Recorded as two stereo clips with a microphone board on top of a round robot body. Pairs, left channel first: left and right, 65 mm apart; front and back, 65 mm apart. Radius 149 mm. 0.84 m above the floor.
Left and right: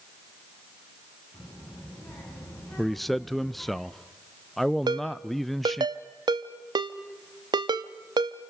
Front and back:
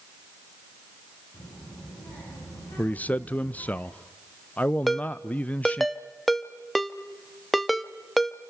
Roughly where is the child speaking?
Ahead.